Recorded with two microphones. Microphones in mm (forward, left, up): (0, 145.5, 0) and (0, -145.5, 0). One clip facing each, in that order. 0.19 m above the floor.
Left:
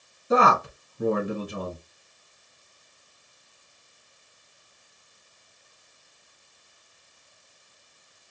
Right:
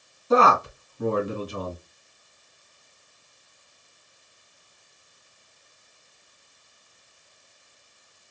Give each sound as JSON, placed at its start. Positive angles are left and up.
{"t": 0.3, "sound": "a man speaking", "side_deg": 15, "distance_m": 2.0}